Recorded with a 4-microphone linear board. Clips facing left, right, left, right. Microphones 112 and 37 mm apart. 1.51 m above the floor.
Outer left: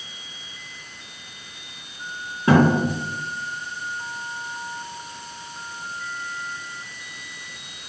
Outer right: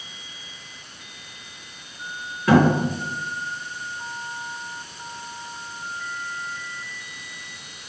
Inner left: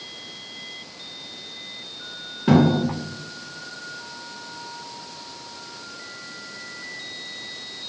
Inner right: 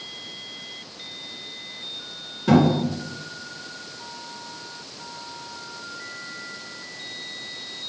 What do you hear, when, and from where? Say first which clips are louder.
2.5 s a thud: even, inner left 1 dB; 25° left (ahead or behind), 2 m